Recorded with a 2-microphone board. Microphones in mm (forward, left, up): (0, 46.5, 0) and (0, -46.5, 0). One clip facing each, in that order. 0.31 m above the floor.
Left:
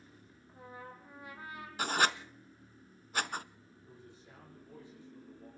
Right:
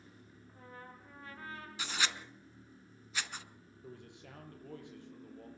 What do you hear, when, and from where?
0.5 s a trumpet: 15° left (ahead or behind), 4.5 m
1.8 s writing: 50° left (ahead or behind), 0.8 m
3.8 s a man speaking: 70° right (ahead or behind), 9 m